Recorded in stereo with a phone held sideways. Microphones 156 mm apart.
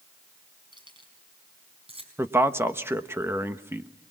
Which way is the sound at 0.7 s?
30° right (ahead or behind).